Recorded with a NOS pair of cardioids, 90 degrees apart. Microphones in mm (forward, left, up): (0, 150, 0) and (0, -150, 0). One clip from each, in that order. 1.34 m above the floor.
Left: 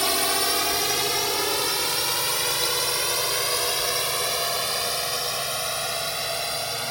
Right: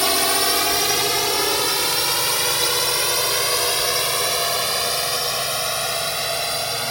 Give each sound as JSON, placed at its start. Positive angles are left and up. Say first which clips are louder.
{"t": 0.0, "sound": "a drone", "louder": "right 4 dB", "azimuth_deg": -35}